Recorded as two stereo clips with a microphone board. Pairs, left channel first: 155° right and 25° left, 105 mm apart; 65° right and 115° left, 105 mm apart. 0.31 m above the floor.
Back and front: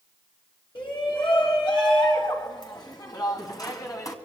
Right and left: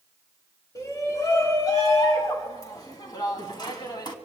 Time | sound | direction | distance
0.8 | a shout | 125° right | 4.5 m